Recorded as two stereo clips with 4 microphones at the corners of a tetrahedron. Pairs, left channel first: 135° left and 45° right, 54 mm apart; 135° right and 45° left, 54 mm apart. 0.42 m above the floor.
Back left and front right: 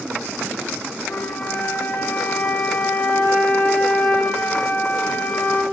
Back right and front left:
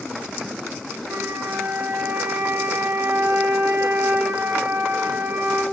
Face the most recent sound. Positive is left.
turn(degrees=80)